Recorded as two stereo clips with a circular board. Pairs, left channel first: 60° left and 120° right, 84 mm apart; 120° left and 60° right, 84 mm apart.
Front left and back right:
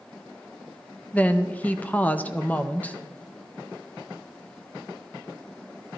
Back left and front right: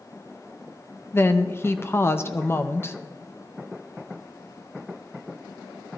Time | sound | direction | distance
1.1 | a woman speaking | 110° left | 0.6 m